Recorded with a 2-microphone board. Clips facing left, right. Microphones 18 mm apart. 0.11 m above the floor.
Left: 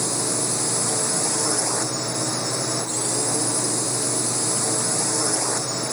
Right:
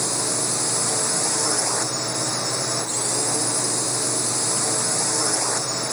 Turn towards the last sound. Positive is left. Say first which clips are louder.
# even
turn(degrees=-15)  # may be behind; listen again after turning